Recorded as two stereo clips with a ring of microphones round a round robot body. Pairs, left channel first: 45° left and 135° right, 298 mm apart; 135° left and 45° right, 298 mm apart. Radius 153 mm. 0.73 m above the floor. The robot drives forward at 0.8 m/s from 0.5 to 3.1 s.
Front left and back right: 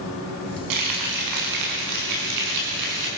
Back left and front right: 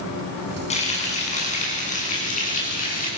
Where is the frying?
155° right, 7.5 m; by 3.1 s 160° right, 9 m.